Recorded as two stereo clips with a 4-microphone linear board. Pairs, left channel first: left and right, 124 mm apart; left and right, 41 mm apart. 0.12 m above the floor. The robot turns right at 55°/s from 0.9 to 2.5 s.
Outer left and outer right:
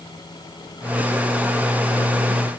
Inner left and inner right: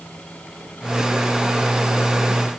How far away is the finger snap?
No finger snap in this recording.